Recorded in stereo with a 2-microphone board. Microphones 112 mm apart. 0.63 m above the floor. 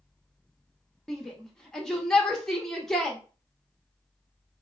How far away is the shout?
About 0.5 m.